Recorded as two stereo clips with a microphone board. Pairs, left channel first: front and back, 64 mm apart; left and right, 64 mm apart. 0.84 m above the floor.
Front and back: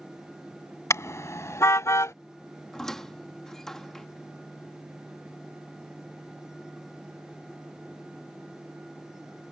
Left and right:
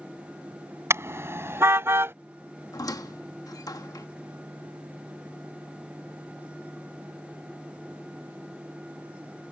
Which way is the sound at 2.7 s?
80° left.